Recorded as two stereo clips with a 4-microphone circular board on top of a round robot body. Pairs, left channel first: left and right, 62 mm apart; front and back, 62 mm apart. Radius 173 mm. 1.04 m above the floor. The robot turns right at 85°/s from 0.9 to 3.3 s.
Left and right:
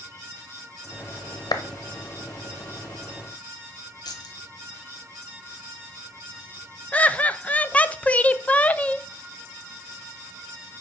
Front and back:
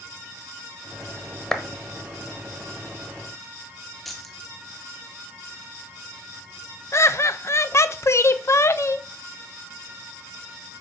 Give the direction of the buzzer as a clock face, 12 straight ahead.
No buzzer in this recording.